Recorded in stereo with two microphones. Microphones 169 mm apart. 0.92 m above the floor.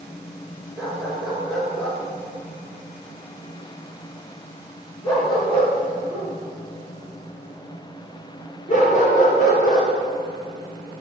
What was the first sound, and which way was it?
A dog barking, 5° right (ahead or behind).